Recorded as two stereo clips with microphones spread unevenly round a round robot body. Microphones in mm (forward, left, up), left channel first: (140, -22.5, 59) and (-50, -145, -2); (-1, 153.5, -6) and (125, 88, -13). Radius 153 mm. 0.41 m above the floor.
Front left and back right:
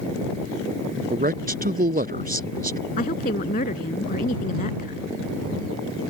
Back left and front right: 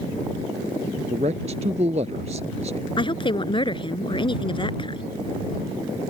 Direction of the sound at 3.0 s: 100° left.